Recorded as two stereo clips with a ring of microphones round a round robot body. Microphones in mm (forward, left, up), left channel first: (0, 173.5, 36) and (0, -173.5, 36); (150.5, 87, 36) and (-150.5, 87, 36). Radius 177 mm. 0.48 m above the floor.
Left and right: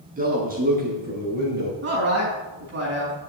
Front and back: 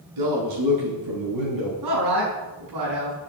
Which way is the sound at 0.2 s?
155° right.